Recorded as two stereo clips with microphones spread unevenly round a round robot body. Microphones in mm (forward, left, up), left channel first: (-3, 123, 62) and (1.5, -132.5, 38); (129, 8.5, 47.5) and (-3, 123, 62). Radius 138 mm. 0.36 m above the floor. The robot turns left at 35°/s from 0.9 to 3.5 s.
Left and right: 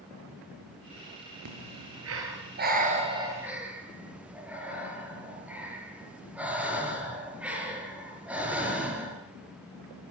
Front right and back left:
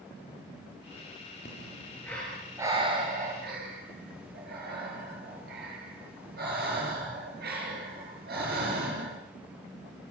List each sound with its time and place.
1.4 s breathing: 100° right, 5.5 m; by 9.2 s 175° right, 5.5 m